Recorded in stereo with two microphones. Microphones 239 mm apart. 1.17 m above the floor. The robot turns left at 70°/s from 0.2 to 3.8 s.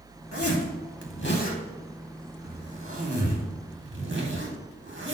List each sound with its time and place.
0.3 s a zipper: 65° left (ahead or behind), 2.0 m; by 5.2 s 50° right (ahead or behind), 2.0 m